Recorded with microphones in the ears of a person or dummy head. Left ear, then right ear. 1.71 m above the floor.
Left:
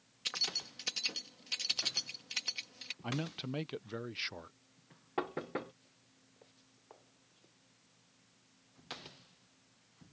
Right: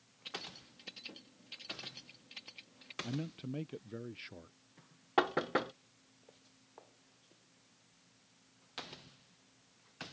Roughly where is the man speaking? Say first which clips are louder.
Left 3 dB; left.